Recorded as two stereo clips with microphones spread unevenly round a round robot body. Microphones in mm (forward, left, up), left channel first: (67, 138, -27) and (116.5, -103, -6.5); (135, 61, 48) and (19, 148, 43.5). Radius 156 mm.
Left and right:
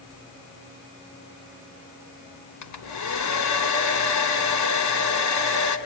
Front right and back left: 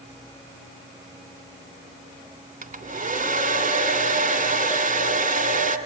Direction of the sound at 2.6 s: 115° left.